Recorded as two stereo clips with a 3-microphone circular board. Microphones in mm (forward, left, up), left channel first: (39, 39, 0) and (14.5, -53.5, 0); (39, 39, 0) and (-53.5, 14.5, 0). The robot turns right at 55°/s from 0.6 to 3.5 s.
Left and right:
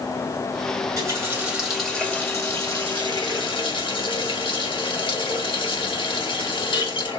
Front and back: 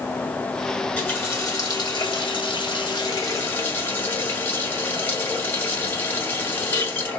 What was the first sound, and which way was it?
A running tap, 70° right.